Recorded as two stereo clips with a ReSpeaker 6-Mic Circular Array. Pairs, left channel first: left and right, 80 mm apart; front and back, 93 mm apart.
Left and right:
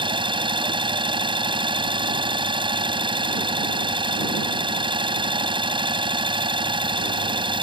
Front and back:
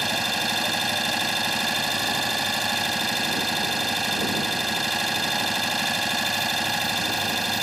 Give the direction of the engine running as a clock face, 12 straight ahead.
3 o'clock.